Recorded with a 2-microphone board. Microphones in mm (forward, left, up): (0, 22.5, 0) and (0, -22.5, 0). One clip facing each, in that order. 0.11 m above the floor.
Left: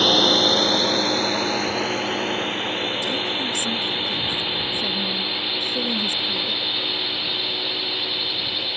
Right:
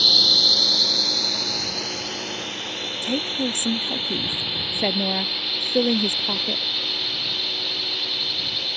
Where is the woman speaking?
55° right (ahead or behind).